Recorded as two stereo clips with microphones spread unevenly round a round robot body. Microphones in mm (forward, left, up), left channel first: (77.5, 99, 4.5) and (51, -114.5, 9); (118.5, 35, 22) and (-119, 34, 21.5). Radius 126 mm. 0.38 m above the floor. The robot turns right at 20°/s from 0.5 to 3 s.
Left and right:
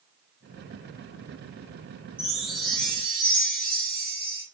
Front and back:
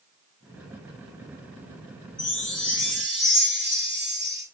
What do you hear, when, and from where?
2.2 s a chime: 15° right, 1.9 m; by 4.4 s straight ahead, 1.9 m